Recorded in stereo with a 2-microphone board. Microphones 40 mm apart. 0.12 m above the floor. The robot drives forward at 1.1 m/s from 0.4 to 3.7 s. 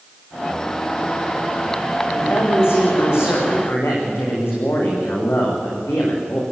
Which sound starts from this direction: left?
A man speaking, at 2.1 s.